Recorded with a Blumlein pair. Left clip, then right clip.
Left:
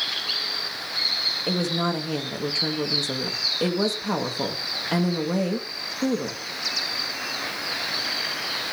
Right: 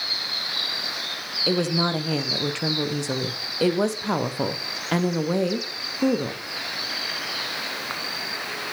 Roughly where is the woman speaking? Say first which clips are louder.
Right 2 dB; ahead.